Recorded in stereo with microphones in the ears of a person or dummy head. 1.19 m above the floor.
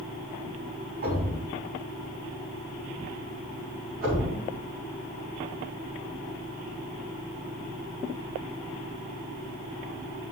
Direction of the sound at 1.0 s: 50° right (ahead or behind).